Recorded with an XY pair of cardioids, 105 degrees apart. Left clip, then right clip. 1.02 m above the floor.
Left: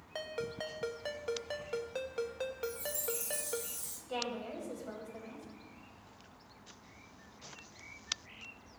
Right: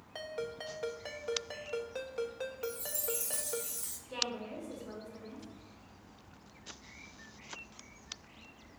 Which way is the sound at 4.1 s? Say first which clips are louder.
Right 1 dB; 65° left.